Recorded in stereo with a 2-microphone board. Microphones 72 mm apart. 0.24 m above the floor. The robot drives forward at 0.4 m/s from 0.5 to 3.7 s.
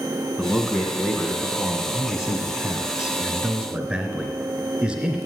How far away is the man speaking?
About 2 m.